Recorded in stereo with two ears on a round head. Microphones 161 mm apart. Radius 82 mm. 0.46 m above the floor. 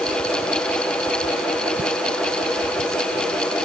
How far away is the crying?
I don't hear crying.